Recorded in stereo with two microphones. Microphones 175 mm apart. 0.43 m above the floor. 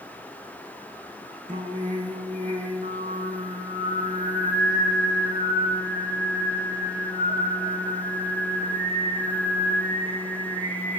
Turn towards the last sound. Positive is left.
turn(degrees=-50)  # may be behind; listen again after turning